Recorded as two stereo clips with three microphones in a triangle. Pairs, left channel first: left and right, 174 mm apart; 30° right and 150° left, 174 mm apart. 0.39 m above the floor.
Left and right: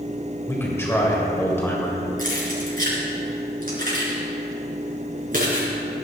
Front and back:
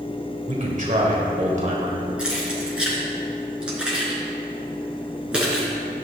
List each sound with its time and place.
0.5 s a man speaking: 160° left, 2.0 m
2.2 s keys jangling: 125° right, 3.5 m